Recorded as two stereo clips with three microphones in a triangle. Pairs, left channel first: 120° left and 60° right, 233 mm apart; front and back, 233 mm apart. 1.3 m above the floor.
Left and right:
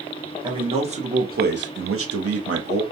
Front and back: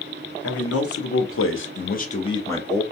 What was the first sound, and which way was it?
A man speaking, 10° left.